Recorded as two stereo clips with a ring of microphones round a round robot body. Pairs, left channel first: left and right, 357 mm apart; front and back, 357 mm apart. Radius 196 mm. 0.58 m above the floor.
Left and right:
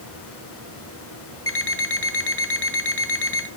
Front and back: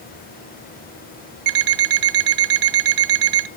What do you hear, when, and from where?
1.5 s an alarm clock: 150° left, 1.2 m